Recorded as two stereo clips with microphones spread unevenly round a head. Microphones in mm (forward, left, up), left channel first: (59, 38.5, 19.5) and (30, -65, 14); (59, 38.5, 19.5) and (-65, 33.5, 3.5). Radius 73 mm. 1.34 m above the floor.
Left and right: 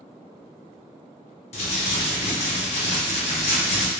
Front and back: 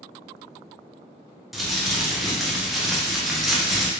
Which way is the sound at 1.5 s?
90° left.